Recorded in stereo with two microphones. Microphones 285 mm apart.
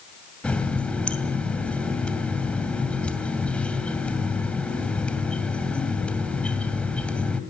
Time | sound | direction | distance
0.4 | a running tap | 5° left (ahead or behind) | 2.5 m